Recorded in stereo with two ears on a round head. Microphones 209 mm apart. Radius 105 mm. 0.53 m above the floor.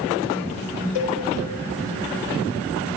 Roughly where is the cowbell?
Left.